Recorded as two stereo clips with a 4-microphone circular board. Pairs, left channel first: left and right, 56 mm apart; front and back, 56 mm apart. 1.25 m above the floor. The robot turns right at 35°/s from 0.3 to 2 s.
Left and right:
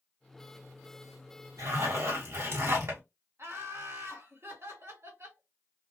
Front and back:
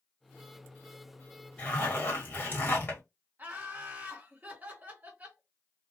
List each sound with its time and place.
1.6 s a zipper: 70° right, 1.3 m; by 3.0 s 55° right, 1.3 m
3.4 s laughter: 125° right, 1.2 m